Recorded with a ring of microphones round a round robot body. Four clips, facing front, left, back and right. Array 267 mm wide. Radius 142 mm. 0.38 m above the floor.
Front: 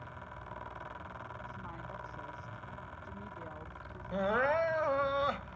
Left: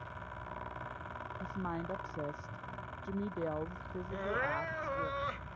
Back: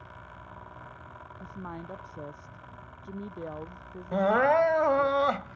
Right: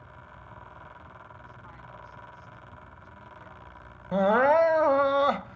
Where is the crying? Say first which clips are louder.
Right 16 dB, back 8 dB; 115° right.